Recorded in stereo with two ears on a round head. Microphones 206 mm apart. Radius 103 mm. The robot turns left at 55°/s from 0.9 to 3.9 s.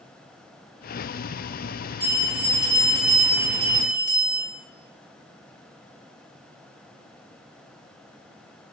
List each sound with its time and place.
2.0 s a bell: 10° left, 1.2 m; by 4.4 s 90° right, 1.2 m